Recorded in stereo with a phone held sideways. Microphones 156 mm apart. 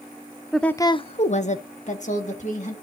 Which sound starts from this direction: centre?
A woman speaking, at 0.5 s.